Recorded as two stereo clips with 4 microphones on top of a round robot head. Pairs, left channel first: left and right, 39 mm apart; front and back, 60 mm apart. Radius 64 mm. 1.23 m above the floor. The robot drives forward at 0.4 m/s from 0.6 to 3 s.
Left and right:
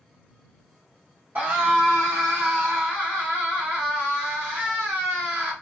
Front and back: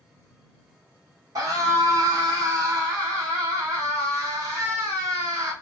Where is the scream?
145° right, 1.5 m; by 5.5 s 155° right, 2 m.